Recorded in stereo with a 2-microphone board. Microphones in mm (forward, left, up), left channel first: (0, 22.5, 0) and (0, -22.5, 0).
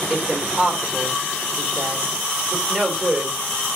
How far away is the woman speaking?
About 3 m.